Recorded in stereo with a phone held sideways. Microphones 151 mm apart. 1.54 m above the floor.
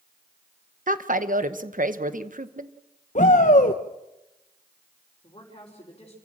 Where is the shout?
55° left (ahead or behind), 0.9 m.